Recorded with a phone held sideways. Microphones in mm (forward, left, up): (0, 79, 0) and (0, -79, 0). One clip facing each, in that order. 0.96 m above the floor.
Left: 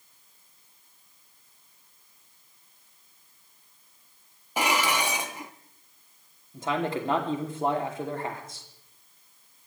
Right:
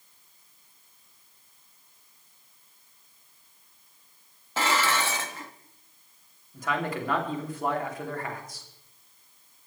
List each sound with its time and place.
4.6 s dishes clattering: 15° left (ahead or behind), 0.8 m
6.5 s a man speaking: 25° left (ahead or behind), 2.5 m